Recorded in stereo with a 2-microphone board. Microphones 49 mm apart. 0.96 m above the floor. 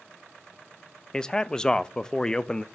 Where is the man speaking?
15° left (ahead or behind), 0.5 m.